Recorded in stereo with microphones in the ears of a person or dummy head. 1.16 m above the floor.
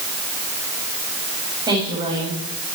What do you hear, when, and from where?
1.7 s a woman speaking: 20° right (ahead or behind), 7.5 m; by 2.8 s 30° right (ahead or behind), 7 m